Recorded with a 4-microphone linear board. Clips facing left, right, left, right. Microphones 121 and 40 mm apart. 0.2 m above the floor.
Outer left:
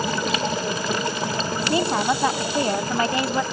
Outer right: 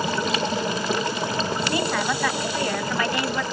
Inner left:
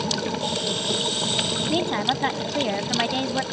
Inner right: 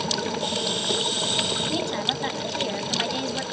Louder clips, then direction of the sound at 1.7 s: Outer left 6 dB, inner left 3 dB; 25° left (ahead or behind).